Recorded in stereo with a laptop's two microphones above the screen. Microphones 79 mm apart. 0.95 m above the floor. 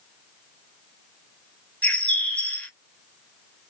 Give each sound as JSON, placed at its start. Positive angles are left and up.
{"t": 1.8, "sound": "a bird", "side_deg": 15, "distance_m": 1.2}